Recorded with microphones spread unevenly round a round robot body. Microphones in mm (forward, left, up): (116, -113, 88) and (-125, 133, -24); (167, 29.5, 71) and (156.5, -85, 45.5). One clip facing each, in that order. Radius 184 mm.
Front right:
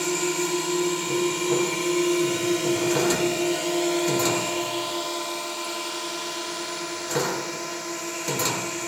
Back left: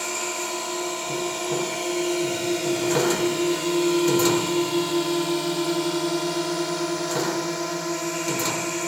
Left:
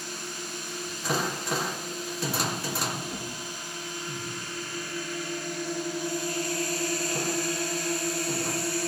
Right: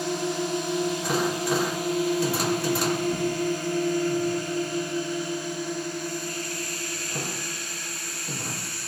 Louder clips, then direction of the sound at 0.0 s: Front right 7 dB, right 12 dB; 105° right.